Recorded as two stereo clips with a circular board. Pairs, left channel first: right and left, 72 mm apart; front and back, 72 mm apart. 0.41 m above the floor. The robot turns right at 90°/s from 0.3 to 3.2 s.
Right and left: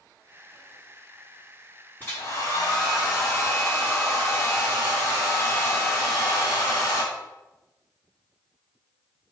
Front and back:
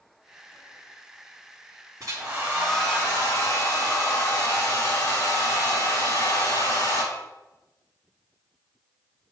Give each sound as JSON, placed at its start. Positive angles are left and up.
{"t": 2.0, "sound": "a hair dryer", "azimuth_deg": -155, "distance_m": 4.5}